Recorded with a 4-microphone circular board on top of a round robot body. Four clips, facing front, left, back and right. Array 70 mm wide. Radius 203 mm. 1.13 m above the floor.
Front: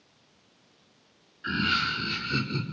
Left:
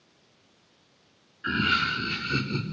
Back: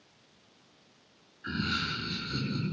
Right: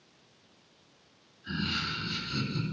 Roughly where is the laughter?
Left.